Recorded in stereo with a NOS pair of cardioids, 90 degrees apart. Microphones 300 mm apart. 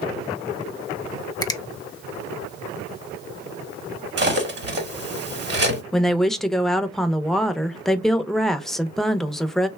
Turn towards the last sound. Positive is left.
turn(degrees=0)